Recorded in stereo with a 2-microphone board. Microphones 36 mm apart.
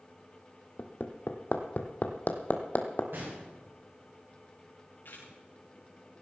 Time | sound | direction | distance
0.8 | hammering | 50° left (ahead or behind) | 1.6 m
3.1 | a gunshot | 75° right (ahead or behind) | 8 m
5.0 | a camera shutter | 70° left (ahead or behind) | 6 m